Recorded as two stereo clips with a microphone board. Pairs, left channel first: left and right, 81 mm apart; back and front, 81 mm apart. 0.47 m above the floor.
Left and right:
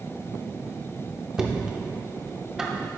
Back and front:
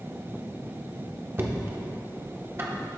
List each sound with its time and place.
1.4 s knocking: 15° right, 0.8 m